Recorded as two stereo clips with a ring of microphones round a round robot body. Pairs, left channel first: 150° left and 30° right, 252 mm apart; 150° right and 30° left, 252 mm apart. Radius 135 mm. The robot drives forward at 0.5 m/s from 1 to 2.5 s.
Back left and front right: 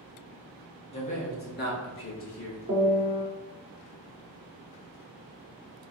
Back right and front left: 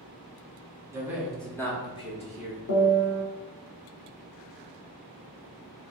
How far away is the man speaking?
About 0.8 m.